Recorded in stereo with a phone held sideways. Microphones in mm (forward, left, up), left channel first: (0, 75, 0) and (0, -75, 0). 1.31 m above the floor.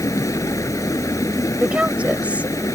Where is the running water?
20° left (ahead or behind).